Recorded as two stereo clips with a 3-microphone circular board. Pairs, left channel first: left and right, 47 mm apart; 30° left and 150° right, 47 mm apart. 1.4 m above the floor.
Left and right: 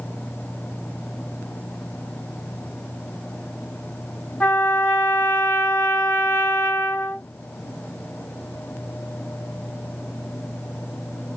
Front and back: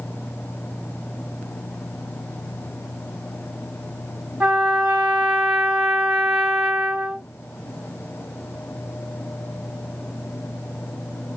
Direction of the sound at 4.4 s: 155° left.